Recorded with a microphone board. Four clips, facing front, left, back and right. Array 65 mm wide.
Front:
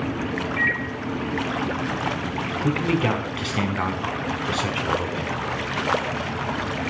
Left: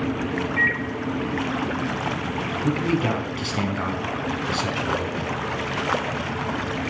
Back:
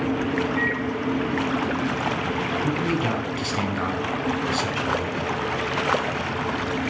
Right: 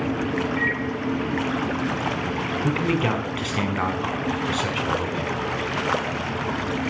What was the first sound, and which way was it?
A microwave, 35° left.